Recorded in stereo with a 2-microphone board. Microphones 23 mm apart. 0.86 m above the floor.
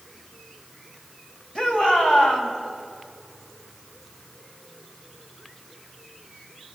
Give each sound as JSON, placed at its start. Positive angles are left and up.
{"t": 1.6, "sound": "a shout", "side_deg": 45, "distance_m": 5.0}